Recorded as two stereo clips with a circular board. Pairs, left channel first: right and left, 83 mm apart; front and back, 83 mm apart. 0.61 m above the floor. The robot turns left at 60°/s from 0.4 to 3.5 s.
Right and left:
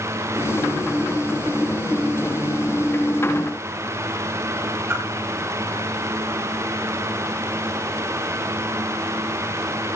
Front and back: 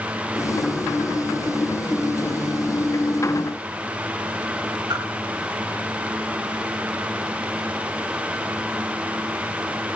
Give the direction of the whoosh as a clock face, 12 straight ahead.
7 o'clock.